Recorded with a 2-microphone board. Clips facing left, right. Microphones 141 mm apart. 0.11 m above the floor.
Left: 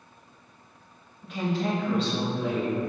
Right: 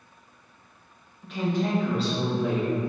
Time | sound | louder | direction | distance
1.2 | a woman speaking | right 1 dB | 5° left (ahead or behind) | 1.1 m